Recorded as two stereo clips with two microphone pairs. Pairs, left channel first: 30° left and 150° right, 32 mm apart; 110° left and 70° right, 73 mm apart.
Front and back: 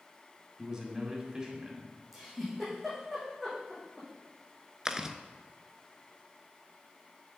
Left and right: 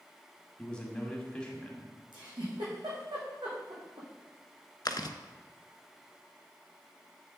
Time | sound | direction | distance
0.6 | a man speaking | 170° left | 1.7 m
2.1 | a giggle | 65° right | 4 m
4.8 | chewing | 135° left | 0.6 m